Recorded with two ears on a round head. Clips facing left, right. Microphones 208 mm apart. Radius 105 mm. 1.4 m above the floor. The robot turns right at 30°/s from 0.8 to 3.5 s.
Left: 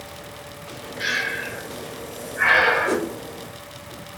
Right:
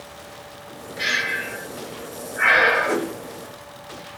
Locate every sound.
1.0 s breathing: 45° right (ahead or behind), 1.0 m; by 3.0 s 15° left (ahead or behind), 1.0 m
2.9 s a whoosh: 35° left (ahead or behind), 0.9 m; by 3.1 s 30° left (ahead or behind), 0.9 m